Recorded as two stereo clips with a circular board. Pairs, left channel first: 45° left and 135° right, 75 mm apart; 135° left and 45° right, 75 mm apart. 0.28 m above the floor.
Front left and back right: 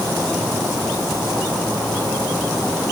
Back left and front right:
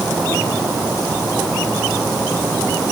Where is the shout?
No shout in this recording.